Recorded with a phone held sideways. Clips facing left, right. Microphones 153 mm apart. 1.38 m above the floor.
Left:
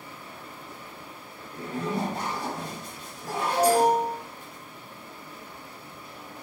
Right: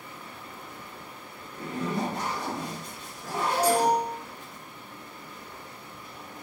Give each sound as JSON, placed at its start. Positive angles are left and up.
{"t": 0.0, "sound": "running water", "side_deg": 30, "distance_m": 1.2}
{"t": 1.5, "sound": "a zipper", "side_deg": 55, "distance_m": 1.6}
{"t": 3.6, "sound": "an alarm", "side_deg": 55, "distance_m": 1.7}